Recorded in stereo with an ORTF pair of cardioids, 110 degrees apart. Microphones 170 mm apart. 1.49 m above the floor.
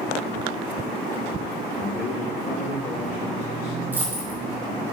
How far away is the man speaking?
About 2.5 m.